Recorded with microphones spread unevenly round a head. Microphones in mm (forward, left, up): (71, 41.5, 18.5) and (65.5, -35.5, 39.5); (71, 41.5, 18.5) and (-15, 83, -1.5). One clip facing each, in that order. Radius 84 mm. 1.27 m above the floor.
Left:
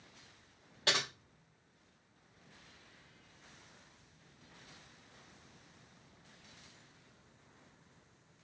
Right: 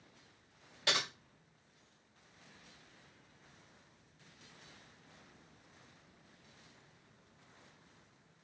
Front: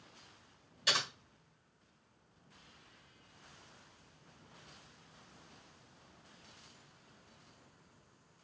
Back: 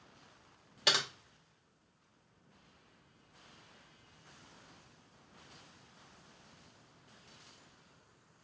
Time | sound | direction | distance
0.9 | typing on a keyboard | 160° left | 0.9 m